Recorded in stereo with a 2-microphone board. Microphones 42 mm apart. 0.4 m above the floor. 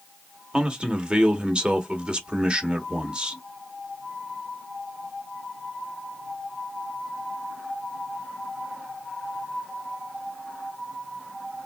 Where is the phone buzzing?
I don't hear a phone buzzing.